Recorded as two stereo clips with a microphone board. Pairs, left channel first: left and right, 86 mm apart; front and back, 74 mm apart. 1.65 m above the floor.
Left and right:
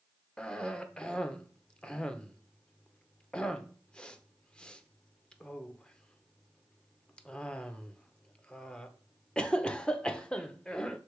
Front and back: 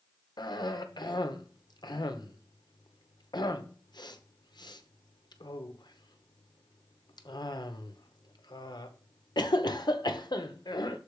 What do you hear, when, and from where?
0.4 s a cough: 10° left, 0.9 m